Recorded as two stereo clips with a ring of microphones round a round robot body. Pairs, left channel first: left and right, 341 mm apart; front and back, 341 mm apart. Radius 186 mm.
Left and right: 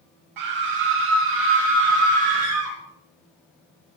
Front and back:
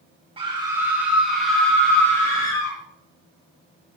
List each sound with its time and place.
0.4 s a scream: 105° right, 2.5 m; by 2.8 s 80° right, 4.5 m